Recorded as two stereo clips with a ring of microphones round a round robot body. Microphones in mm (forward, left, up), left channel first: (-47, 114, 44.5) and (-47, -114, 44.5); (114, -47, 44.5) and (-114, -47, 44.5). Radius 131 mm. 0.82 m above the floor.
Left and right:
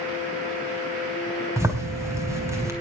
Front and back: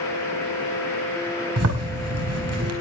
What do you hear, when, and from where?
1.6 s a zipper: 170° right, 4.5 m